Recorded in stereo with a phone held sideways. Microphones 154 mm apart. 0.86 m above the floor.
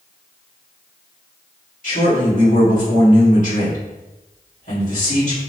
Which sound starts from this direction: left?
A man speaking, at 1.8 s.